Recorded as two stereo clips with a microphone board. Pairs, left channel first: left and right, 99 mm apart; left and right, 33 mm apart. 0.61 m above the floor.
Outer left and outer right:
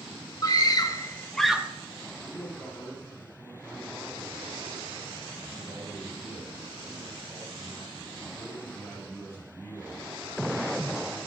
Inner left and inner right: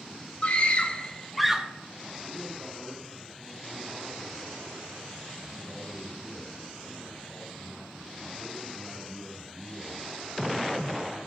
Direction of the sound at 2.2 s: 25° left (ahead or behind).